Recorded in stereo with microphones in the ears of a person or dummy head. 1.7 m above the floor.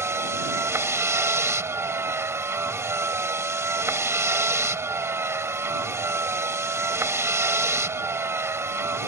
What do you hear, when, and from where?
0.0 s a vehicle: 15° right (ahead or behind)